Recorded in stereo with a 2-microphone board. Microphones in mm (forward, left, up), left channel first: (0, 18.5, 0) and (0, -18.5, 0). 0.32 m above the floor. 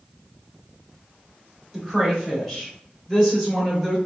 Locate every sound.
1.7 s a woman speaking: 5° left (ahead or behind), 1.4 m; by 4.0 s 15° left (ahead or behind), 1.5 m